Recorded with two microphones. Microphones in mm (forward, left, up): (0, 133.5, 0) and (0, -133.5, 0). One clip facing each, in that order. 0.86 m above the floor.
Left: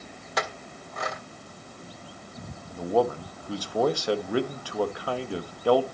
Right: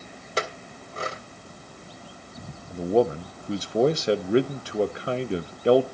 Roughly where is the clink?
Right.